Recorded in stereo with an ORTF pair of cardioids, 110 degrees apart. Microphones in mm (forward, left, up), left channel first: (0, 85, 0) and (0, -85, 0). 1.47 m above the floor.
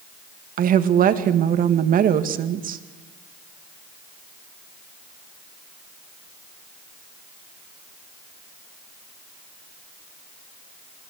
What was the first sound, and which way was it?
A woman speaking, 55° right.